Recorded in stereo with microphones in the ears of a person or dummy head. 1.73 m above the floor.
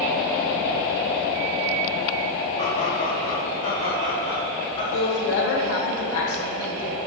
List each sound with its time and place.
2.6 s laughter: 35° left (ahead or behind), 3 m; by 4.8 s 30° left (ahead or behind), 4.5 m
4.9 s a woman speaking: 80° left, 2.5 m